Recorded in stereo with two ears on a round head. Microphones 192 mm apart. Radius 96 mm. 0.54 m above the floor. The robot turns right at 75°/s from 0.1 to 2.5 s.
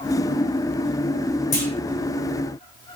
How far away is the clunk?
About 5 m.